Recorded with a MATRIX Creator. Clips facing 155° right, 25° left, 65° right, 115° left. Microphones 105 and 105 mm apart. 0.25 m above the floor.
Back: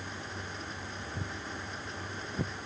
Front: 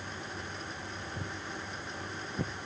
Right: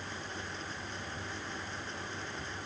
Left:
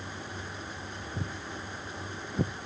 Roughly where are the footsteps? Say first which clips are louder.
Back 1 dB, left 3 dB; behind left.